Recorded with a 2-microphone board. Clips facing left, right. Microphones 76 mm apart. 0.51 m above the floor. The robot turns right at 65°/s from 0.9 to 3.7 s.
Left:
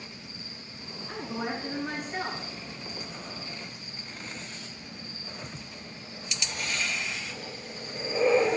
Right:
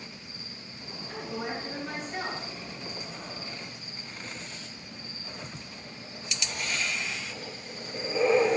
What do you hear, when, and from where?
1.1 s a woman speaking: 110° left, 4 m; by 2.5 s 160° right, 4 m